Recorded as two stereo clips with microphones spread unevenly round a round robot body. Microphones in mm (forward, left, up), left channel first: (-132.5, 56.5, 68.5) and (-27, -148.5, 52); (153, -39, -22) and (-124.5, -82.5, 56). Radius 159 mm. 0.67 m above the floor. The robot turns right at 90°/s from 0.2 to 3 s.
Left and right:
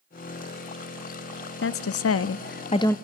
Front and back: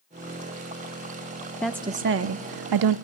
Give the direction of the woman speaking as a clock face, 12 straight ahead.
9 o'clock.